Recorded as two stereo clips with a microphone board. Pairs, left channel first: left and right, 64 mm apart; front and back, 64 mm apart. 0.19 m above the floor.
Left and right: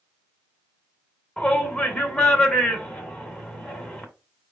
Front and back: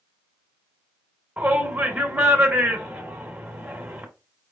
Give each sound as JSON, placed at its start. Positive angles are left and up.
{"t": 1.4, "sound": "a shout", "azimuth_deg": 145, "distance_m": 1.5}